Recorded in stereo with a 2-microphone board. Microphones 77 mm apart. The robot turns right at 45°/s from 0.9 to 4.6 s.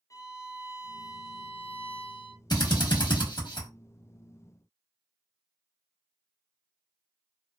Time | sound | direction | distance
0.1 | a violin | 45° left | 0.6 m
2.5 | a drill | 55° left (ahead or behind) | 1.1 m